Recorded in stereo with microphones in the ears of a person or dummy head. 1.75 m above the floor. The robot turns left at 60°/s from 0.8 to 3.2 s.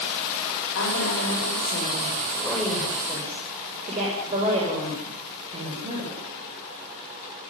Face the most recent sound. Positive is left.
turn(degrees=-35)